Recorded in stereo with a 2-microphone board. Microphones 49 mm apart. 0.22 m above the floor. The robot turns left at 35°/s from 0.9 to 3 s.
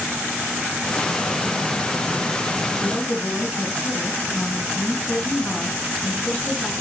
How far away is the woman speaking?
About 1.8 m.